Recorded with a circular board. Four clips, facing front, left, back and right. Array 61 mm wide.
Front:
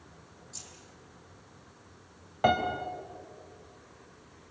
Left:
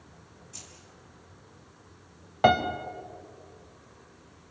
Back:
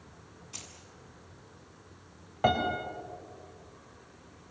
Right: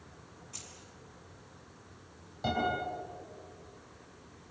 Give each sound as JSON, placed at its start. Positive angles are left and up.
{"t": 0.5, "sound": "keys jangling", "azimuth_deg": -170, "distance_m": 4.5}
{"t": 2.4, "sound": "a piano", "azimuth_deg": 85, "distance_m": 2.0}